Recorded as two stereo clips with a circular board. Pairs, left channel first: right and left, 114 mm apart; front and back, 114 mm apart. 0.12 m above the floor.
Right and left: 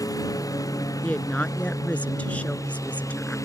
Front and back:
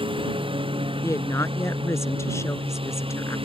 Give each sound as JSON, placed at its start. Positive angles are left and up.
{"t": 0.0, "sound": "a lawn mower", "azimuth_deg": -145}
{"t": 1.0, "sound": "a woman speaking", "azimuth_deg": -25}